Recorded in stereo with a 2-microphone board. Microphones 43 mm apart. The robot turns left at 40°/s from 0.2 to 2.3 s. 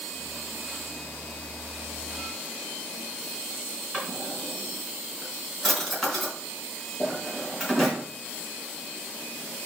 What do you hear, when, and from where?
3.9 s a drawer: centre (ahead or behind), 4.5 m